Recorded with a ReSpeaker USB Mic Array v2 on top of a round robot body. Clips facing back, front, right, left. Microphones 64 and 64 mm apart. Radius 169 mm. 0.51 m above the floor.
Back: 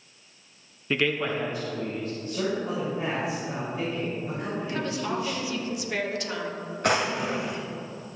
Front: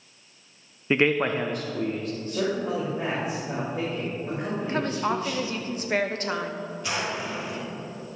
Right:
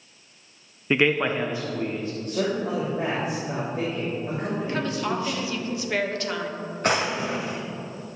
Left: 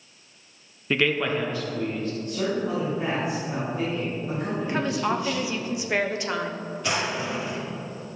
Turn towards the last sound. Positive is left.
turn(degrees=-140)